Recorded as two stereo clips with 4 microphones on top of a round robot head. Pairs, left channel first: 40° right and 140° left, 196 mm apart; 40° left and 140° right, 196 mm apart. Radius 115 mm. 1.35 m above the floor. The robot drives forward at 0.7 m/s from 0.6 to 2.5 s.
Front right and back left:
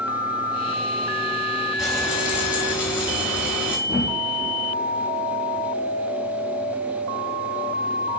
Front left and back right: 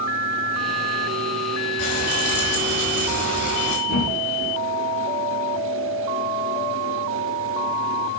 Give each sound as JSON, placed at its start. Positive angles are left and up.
{"t": 1.8, "sound": "frying", "azimuth_deg": 55, "distance_m": 4.0}
{"t": 3.9, "sound": "a thud", "azimuth_deg": 65, "distance_m": 5.5}